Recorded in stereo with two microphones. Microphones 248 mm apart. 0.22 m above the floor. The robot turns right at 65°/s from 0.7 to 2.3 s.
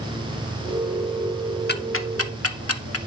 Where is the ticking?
40° left (ahead or behind), 0.5 m; by 3.0 s 65° left (ahead or behind), 0.5 m.